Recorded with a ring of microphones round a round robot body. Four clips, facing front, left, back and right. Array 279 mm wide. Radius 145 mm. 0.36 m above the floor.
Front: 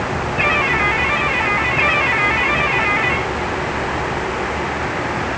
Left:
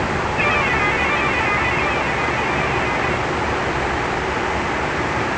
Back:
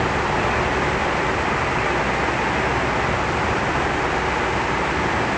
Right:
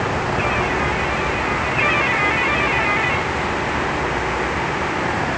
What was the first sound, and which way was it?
Only background noise.